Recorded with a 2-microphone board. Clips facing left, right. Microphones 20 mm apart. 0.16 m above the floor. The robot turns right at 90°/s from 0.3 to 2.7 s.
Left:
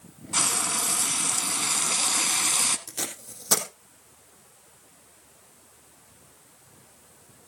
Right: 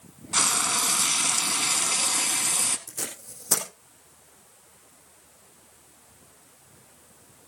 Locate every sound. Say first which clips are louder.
0.3 s frying: right 2 dB; 20° right (ahead or behind), 0.8 m; by 2.8 s 30° left (ahead or behind), 0.8 m
2.9 s tape being pulled: left 2 dB; 70° left (ahead or behind), 2.5 m